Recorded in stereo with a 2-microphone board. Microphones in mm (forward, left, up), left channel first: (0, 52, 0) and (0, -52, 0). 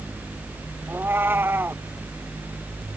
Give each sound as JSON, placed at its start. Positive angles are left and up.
{"t": 0.9, "sound": "a cat meowing", "side_deg": -20}